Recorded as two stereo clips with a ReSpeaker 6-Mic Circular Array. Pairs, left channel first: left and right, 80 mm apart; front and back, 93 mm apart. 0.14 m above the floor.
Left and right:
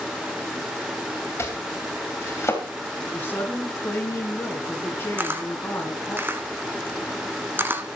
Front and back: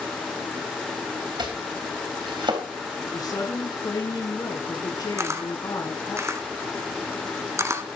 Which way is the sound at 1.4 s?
150° left.